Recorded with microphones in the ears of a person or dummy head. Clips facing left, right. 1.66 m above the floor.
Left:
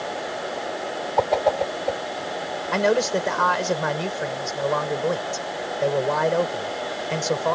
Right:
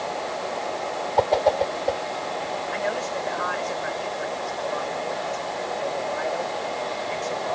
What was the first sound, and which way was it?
A whoosh, 5° right (ahead or behind).